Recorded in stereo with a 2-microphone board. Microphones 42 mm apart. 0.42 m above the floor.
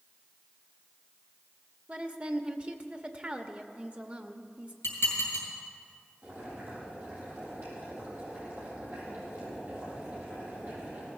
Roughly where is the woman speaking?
Right.